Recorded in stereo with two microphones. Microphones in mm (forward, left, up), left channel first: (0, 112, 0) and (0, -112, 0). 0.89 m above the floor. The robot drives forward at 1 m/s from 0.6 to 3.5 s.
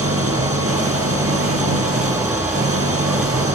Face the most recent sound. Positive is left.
turn(degrees=-85)